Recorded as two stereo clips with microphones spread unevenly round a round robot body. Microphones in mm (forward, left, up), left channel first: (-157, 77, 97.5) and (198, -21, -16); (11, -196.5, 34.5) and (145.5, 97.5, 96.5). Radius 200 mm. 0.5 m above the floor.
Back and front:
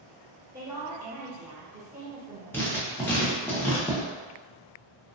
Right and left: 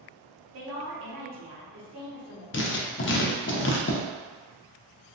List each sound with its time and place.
0.5 s a woman speaking: 55° left, 1.3 m
2.5 s writing: 95° right, 0.6 m